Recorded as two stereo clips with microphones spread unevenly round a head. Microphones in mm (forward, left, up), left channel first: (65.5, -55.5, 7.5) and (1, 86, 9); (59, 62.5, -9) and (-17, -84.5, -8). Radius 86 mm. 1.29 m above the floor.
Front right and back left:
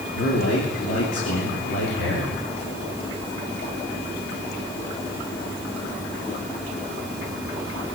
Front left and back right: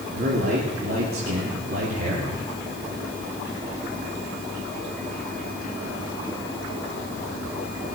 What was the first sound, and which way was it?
A man speaking, 85° right.